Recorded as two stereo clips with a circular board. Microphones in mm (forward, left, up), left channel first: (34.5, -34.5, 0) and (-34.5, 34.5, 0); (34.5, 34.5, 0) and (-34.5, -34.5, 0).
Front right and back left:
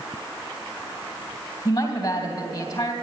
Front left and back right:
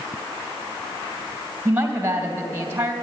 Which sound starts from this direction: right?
A woman speaking, at 1.6 s.